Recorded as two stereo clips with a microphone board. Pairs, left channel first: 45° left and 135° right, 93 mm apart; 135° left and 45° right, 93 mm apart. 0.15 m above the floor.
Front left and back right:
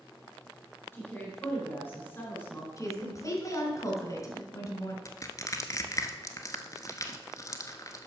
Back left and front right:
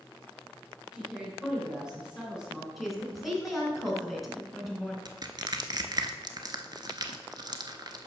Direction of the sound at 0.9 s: 25° left.